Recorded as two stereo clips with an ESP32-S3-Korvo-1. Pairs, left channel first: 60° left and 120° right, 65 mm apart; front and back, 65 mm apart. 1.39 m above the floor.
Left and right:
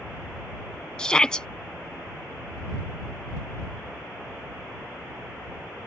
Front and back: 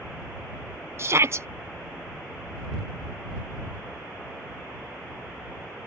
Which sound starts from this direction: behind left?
A shout, at 1.0 s.